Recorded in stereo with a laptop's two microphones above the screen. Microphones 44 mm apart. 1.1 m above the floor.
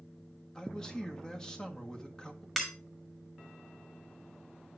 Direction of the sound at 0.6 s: 15° left (ahead or behind).